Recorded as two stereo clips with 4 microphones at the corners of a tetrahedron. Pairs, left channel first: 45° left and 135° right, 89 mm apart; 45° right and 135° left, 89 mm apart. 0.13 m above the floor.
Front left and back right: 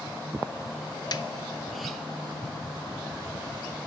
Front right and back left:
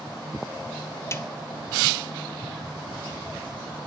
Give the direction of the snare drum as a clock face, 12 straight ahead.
12 o'clock.